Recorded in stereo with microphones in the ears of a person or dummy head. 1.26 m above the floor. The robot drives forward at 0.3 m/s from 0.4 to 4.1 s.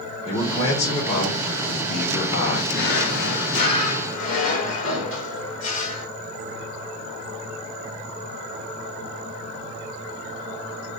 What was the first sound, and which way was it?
A man speaking, 35° left (ahead or behind).